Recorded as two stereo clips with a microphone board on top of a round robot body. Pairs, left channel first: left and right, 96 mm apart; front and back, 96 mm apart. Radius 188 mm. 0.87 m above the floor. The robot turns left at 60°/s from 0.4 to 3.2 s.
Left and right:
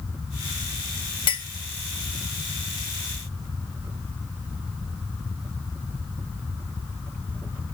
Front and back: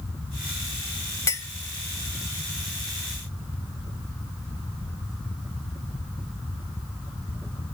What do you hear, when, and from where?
1.3 s a clink: 60° left, 0.7 m; by 1.5 s 50° left, 0.7 m